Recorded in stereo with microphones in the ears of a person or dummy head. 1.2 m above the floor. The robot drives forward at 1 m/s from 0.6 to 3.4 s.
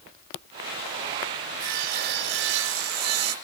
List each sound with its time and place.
1.6 s sawing: 45° right (ahead or behind), 2.5 m; by 3.4 s 75° right (ahead or behind), 1.8 m